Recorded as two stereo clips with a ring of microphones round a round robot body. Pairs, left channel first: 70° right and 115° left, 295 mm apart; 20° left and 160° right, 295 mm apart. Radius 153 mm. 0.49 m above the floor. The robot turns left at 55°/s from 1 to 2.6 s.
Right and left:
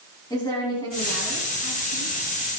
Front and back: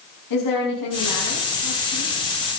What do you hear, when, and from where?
0.3 s a woman speaking: 10° left, 5 m; by 2.1 s 55° right, 5 m